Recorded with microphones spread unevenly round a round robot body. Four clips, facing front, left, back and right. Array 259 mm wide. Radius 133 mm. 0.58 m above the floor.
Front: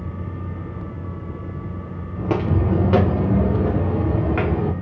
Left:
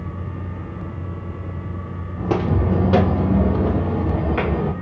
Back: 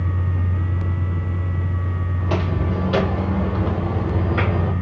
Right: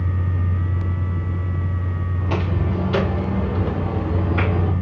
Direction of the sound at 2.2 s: 60° left.